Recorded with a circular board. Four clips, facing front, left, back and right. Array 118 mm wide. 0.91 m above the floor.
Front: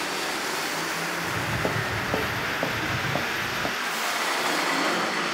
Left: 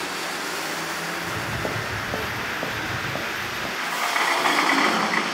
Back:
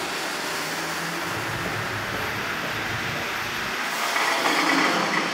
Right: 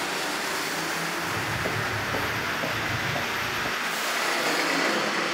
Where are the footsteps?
40° left, 2 m; by 3.7 s 15° left, 3.5 m.